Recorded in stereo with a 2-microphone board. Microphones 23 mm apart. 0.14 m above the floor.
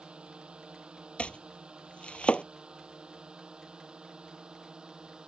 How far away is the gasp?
I don't hear a gasp.